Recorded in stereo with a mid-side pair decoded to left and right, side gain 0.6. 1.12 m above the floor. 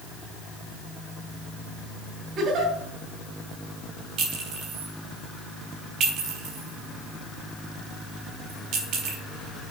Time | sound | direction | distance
2.4 | a giggle | 55° right | 2.5 m
4.2 | a clink | 60° right | 3.5 m